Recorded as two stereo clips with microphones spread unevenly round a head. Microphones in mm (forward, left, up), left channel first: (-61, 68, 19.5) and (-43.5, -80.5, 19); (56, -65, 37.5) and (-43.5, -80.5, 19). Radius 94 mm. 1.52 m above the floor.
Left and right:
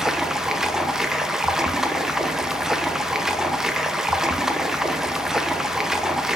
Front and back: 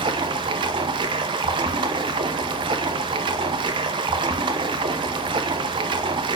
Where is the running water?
170° right, 0.8 m.